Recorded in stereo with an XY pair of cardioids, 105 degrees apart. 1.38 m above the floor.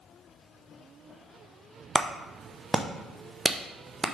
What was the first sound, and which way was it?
A clap, 25° right.